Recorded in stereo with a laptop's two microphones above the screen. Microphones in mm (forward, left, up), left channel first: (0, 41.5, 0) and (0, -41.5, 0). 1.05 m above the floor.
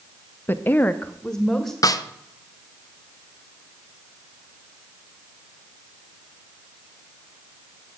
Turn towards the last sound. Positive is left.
turn(degrees=45)  # may be behind; listen again after turning